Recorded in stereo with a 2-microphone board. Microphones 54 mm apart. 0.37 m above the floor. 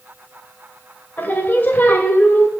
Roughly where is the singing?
Left.